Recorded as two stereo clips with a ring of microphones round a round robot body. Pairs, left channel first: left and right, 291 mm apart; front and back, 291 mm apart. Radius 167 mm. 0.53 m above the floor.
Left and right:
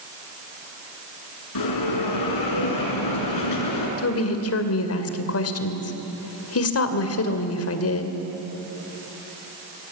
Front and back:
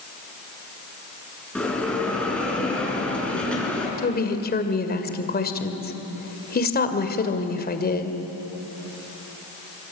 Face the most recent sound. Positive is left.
turn(degrees=55)